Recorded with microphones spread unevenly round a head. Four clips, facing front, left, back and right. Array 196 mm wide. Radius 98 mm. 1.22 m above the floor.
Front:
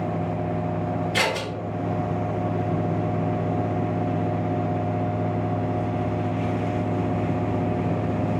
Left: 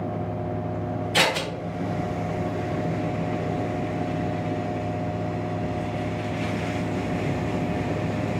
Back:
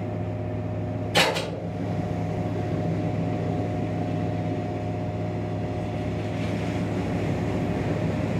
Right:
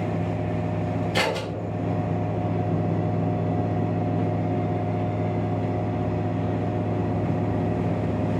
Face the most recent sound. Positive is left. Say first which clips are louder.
# left 3 dB, back 5 dB
turn(degrees=-155)